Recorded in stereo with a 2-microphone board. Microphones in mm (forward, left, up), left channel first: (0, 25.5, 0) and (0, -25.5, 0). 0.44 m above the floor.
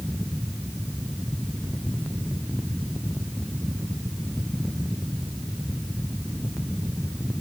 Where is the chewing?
I don't hear chewing.